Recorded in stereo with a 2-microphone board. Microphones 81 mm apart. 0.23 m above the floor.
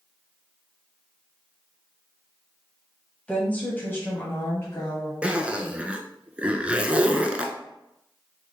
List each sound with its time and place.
3.3 s a woman speaking: 15° left (ahead or behind), 1.1 m; by 5.1 s 35° left (ahead or behind), 1.3 m
5.2 s a zipper: 15° right (ahead or behind), 0.6 m